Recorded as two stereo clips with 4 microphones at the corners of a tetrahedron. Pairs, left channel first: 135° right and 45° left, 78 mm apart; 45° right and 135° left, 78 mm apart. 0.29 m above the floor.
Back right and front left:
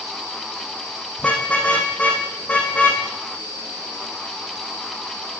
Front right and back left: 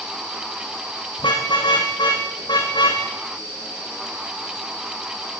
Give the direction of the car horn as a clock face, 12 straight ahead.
2 o'clock.